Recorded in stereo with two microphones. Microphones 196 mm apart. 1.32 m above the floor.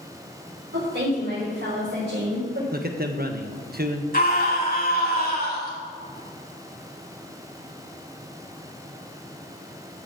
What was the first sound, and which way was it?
A woman speaking, 85° right.